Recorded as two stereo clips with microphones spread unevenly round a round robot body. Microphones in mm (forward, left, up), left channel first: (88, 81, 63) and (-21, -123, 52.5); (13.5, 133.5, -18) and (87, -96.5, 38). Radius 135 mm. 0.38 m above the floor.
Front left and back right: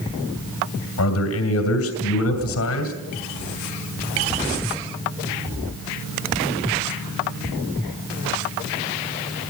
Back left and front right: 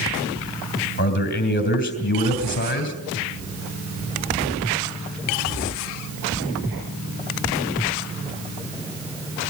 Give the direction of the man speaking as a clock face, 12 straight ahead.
10 o'clock.